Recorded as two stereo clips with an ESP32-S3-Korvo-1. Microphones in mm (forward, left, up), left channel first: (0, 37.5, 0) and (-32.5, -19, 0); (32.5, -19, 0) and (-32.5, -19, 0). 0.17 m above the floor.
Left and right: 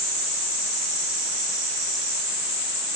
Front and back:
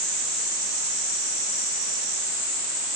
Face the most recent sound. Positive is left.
No sound to turn to.